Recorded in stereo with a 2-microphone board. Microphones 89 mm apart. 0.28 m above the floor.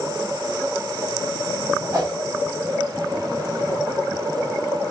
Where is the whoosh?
45° right (ahead or behind), 2.5 m.